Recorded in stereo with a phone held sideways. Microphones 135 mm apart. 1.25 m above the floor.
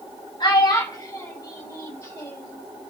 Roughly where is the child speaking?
Left.